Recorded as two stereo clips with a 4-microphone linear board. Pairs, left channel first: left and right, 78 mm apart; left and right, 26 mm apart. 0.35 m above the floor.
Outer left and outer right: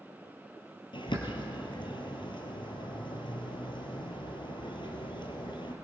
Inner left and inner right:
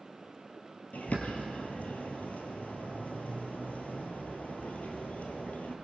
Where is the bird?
85° left, 2.5 m.